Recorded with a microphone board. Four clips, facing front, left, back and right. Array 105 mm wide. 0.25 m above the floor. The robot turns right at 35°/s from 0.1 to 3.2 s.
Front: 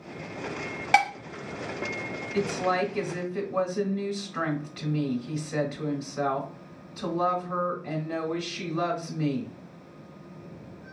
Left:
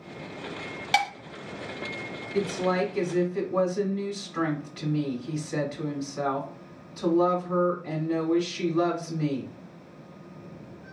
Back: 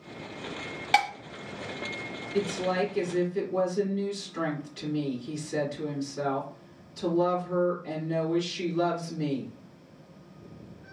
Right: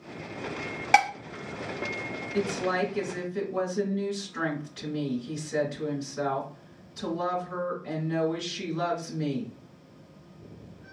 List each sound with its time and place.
0.9 s dishes clattering: 65° right, 0.6 m; by 1.1 s 55° right, 0.6 m
2.3 s a woman speaking: 10° left, 1.9 m; by 9.5 s 40° left, 1.9 m